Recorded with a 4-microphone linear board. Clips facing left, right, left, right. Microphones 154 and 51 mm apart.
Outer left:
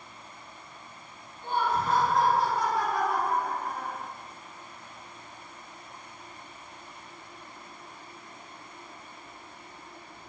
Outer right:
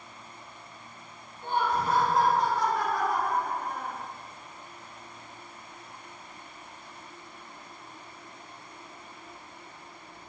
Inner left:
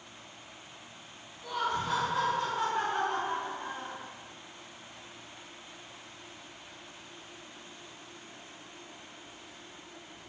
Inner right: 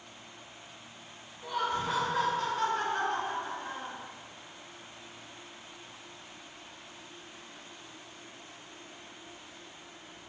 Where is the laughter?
25° right (ahead or behind), 1.2 m; by 4.0 s 45° left (ahead or behind), 1.6 m.